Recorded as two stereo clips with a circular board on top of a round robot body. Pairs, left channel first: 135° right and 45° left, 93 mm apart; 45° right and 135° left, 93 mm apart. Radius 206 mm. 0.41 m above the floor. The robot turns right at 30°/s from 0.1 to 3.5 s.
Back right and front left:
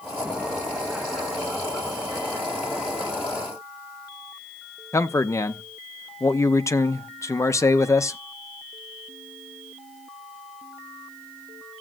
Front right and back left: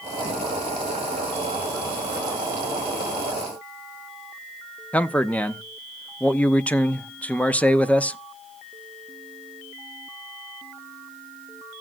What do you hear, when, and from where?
4.9 s a man speaking: 110° right, 1.0 m